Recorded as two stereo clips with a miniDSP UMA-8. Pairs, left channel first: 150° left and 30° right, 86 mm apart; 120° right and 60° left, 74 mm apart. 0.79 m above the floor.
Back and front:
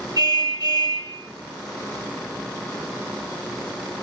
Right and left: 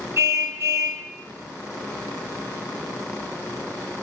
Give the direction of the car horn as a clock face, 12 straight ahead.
12 o'clock.